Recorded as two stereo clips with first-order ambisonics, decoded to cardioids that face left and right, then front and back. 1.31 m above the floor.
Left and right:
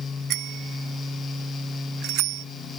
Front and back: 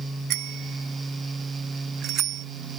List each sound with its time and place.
0.3 s a bicycle bell: 140° right; by 2.5 s 125° right